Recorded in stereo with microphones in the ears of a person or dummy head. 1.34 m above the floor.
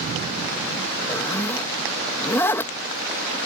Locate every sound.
1.1 s a zipper: 10° left (ahead or behind)